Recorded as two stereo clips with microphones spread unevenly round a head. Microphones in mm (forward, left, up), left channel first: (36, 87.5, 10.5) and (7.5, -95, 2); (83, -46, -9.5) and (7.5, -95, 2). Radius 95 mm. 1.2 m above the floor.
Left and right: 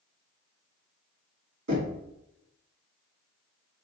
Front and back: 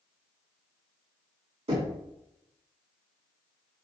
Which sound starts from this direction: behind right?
Knocking, at 1.7 s.